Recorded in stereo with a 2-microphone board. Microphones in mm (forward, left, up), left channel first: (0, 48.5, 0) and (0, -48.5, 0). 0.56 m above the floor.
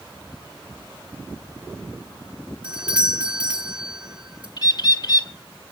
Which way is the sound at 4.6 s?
45° left (ahead or behind).